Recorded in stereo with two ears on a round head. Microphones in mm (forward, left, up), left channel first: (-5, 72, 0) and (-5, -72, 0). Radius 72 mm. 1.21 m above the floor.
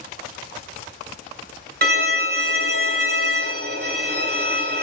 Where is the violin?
65° right (ahead or behind), 0.9 m.